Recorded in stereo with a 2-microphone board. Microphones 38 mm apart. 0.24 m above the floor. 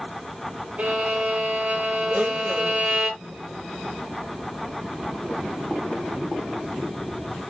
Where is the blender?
45° right (ahead or behind), 6 m.